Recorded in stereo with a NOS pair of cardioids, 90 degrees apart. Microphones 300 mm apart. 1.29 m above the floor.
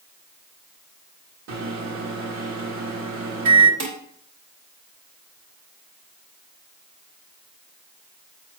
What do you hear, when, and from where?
1.5 s a microwave: 60° right, 1.9 m
3.8 s dishes clattering: 65° right, 2.5 m